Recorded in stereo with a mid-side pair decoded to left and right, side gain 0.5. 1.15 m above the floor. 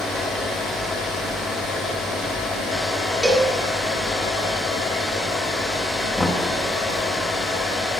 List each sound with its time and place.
0.0 s a fan: 60° left, 3 m
3.2 s a cowbell: 5° left, 1.4 m
6.2 s knocking: 15° left, 1.0 m